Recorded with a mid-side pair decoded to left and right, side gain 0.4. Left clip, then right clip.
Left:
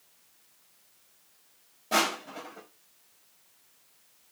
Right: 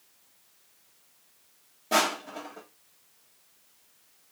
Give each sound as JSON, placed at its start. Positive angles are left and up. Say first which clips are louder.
{"t": 1.9, "sound": "crushing", "louder": "right 1 dB", "azimuth_deg": -25, "distance_m": 2.0}